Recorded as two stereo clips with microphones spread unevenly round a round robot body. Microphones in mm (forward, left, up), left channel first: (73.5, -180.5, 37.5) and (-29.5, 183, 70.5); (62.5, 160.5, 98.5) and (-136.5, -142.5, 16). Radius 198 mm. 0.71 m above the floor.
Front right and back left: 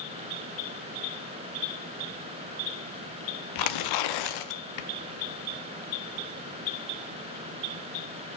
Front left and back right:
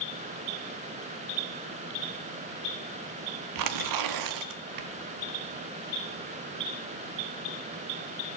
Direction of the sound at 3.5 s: 95° right.